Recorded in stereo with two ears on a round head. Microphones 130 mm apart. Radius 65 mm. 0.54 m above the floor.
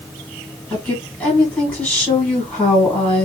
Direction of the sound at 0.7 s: 5° left (ahead or behind).